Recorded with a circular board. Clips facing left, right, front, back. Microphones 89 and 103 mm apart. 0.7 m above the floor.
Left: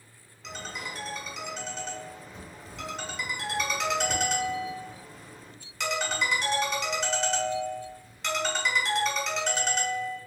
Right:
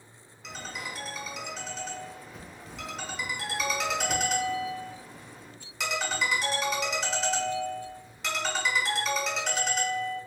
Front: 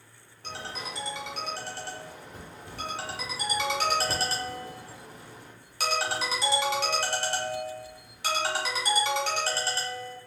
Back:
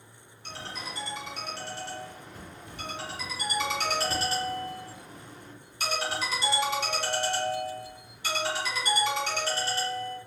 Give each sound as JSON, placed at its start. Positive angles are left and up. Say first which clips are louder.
{"t": 0.4, "sound": "a ringtone", "louder": "left 1 dB, front 2 dB", "azimuth_deg": 0, "distance_m": 1.1}